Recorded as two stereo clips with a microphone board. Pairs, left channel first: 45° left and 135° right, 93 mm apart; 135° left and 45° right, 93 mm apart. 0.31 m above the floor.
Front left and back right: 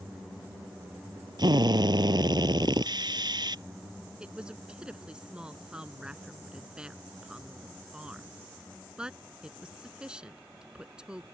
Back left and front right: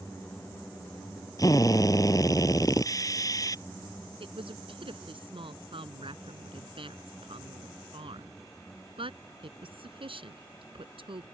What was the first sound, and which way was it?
A drill, 175° right.